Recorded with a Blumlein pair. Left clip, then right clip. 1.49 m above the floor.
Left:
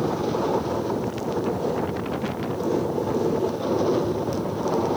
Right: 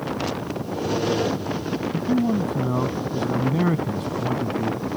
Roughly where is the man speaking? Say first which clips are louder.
Right 4 dB; ahead right.